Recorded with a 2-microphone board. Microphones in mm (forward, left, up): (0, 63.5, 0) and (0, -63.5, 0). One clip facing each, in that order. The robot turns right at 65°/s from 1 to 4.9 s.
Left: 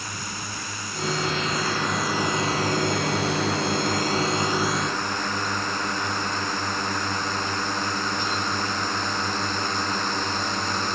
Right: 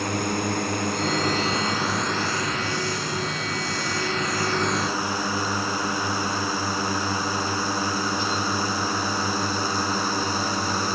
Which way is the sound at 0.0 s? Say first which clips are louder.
Right 11 dB; 65° right (ahead or behind).